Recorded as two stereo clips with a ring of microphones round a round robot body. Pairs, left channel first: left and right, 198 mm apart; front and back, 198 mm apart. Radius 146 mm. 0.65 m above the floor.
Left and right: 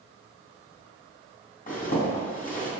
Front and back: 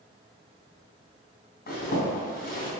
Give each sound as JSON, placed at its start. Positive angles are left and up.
{"t": 1.7, "sound": "a zipper", "azimuth_deg": 40, "distance_m": 3.5}